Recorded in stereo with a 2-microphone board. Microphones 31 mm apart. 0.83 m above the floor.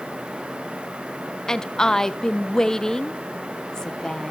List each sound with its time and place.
1.5 s a woman speaking: 20° left (ahead or behind), 0.7 m